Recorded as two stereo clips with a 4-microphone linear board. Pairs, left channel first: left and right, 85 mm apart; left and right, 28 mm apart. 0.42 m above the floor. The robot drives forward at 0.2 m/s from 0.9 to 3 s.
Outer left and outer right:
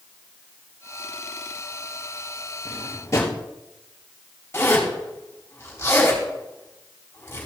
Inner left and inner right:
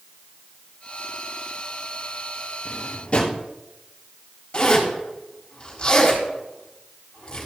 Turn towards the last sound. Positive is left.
turn(degrees=25)  # may be behind; listen again after turning